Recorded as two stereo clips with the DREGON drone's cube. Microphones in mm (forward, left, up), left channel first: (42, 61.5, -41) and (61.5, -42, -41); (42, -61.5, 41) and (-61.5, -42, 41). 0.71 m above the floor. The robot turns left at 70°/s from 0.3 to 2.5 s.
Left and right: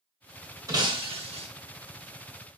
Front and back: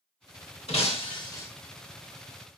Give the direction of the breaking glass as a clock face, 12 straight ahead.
1 o'clock.